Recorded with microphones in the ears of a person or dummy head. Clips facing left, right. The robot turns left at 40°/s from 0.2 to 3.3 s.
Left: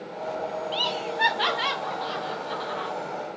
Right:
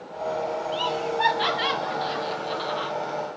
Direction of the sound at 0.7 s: 30° left (ahead or behind).